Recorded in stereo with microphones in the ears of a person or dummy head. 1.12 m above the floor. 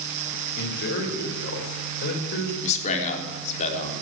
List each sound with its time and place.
0.6 s a man speaking: 60° left (ahead or behind), 3.5 m
2.6 s a man speaking: 40° left (ahead or behind), 3.5 m